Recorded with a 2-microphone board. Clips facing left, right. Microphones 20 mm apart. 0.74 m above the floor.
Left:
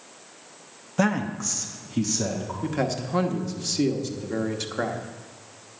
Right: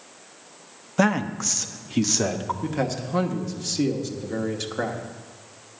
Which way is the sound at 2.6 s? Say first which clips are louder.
Left 4 dB; 5° left (ahead or behind).